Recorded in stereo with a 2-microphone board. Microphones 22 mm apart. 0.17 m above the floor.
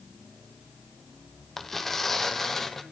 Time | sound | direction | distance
1.6 | tearing paper | 10° left (ahead or behind) | 1.4 m